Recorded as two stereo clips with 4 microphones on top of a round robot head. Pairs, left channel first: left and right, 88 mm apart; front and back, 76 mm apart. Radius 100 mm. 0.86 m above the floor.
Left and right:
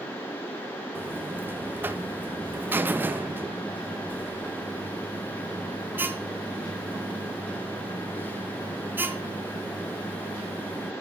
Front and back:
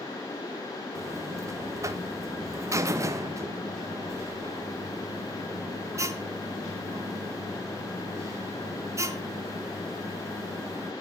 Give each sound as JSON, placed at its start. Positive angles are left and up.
{"t": 0.9, "sound": "a buzzer", "azimuth_deg": -150, "distance_m": 1.3}